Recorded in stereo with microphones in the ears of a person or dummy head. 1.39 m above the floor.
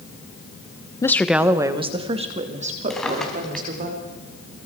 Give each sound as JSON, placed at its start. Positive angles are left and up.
{"t": 1.0, "sound": "a woman speaking", "side_deg": 15, "distance_m": 1.0}
{"t": 2.9, "sound": "a drawer", "side_deg": 0, "distance_m": 4.0}